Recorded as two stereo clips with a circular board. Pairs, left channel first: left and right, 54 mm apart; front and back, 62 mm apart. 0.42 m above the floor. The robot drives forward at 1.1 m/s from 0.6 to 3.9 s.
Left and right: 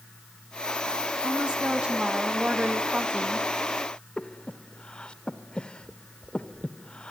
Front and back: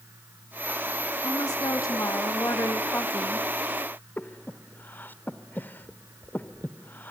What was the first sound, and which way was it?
A woman speaking, 15° right.